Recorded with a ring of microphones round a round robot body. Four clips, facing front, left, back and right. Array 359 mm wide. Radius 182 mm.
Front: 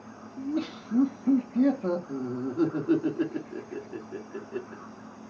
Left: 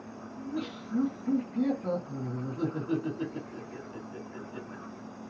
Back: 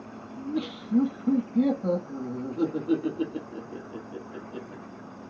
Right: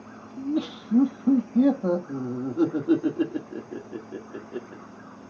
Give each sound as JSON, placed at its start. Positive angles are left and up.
{"t": 0.4, "sound": "laughter", "azimuth_deg": -80, "distance_m": 1.4}